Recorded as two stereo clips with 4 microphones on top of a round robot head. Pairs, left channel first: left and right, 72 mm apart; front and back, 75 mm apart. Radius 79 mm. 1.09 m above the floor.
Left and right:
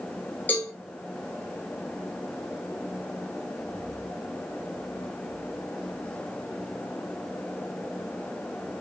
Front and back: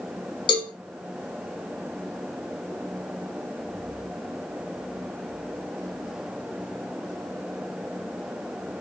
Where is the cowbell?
20° left, 0.8 m.